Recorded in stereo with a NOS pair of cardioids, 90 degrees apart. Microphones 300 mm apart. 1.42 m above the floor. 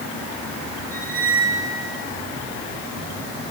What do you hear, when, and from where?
0.9 s a squeak: 30° right, 6.5 m